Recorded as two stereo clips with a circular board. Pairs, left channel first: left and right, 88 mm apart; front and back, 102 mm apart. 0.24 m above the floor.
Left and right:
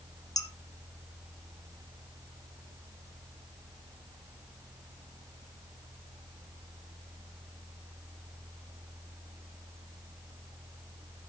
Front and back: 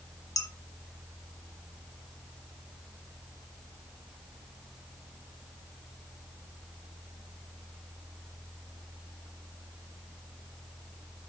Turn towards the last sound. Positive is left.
turn(degrees=50)